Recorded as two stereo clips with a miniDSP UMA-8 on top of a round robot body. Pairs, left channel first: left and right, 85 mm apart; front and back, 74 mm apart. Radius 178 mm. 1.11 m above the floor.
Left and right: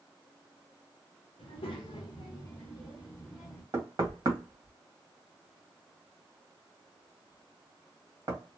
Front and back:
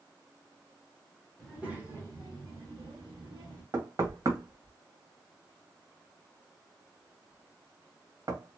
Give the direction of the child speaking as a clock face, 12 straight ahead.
9 o'clock.